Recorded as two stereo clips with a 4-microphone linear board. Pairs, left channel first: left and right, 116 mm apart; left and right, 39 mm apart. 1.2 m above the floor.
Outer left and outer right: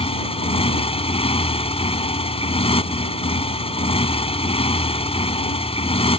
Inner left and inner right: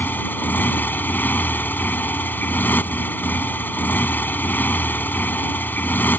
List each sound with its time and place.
0.0 s a motorcycle: 55° left (ahead or behind)